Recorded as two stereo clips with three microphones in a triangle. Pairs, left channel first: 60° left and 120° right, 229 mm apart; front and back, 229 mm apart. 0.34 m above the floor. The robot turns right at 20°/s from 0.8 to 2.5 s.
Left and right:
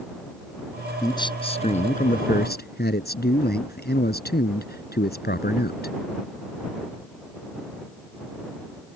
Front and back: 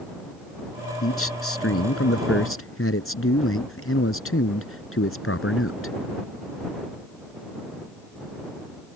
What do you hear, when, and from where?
1.0 s a man speaking: 15° right; by 5.9 s 15° left